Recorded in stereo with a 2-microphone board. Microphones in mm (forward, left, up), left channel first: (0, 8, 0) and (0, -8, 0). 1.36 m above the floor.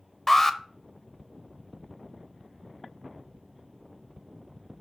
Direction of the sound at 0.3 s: 20° left (ahead or behind).